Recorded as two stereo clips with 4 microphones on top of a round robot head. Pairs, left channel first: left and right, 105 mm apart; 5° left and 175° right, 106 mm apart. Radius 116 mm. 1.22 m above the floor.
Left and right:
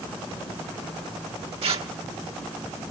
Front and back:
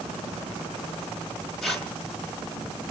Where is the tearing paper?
80° right, 0.8 m.